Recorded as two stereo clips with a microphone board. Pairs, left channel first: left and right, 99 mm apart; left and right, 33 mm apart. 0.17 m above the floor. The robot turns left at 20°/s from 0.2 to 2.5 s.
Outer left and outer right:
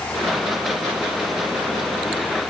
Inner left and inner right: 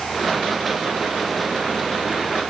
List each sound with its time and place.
Only background noise.